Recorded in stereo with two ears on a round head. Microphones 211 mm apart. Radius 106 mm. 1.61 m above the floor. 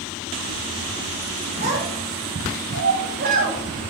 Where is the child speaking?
45° right (ahead or behind), 6 m.